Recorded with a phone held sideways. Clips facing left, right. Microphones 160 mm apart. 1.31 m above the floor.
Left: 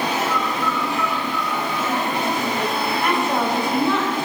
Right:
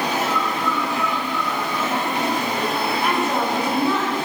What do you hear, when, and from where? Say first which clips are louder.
0.3 s a bird: even; 80° right, 4.5 m
3.0 s a woman speaking: left 2 dB; 5° right (ahead or behind), 5.5 m